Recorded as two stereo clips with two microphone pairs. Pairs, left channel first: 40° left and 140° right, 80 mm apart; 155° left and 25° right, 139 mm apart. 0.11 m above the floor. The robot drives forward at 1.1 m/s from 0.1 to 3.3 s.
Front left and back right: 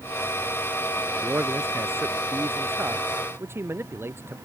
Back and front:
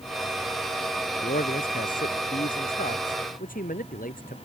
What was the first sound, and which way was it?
A man speaking, 155° left.